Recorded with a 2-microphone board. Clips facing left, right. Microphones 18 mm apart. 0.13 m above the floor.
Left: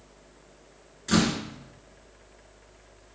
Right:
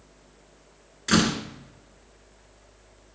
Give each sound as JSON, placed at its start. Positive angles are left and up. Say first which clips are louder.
{"t": 1.1, "sound": "a door slam", "louder": "right 2 dB", "side_deg": -30, "distance_m": 1.0}